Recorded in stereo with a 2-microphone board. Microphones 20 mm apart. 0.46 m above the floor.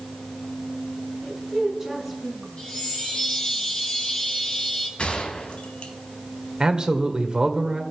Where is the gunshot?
70° left (ahead or behind), 2.5 m.